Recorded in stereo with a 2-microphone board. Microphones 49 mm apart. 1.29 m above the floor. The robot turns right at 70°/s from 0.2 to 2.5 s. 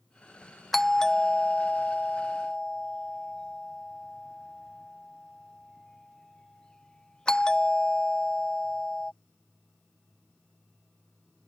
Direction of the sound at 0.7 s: 5° left (ahead or behind).